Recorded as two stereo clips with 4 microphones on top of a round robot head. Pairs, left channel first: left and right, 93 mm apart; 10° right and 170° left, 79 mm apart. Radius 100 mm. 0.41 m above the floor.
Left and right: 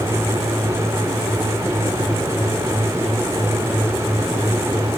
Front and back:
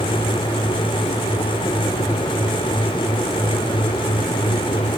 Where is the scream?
I don't hear a scream.